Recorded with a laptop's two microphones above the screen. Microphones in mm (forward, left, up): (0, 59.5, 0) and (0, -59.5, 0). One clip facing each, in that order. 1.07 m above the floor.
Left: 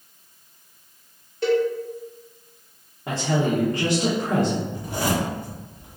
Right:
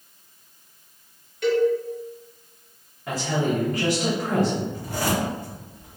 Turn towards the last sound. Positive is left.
turn(degrees=20)  # may be behind; listen again after turning